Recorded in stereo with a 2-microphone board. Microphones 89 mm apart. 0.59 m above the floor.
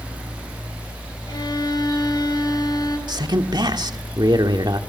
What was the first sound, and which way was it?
A violin, 50° left (ahead or behind).